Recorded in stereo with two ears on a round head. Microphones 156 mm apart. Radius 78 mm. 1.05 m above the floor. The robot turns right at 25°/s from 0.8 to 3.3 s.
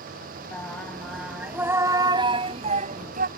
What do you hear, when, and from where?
0.5 s singing: 170° left; by 3.3 s 125° right